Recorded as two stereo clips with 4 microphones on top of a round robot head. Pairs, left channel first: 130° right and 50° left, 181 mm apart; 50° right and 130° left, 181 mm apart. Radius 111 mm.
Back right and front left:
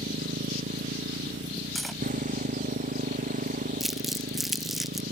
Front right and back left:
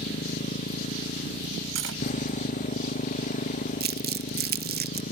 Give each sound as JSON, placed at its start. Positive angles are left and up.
{"t": 0.0, "sound": "a motorcycle", "azimuth_deg": 0}
{"t": 1.8, "sound": "cutlery clinking", "azimuth_deg": 140}
{"t": 3.8, "sound": "crumpling", "azimuth_deg": 135}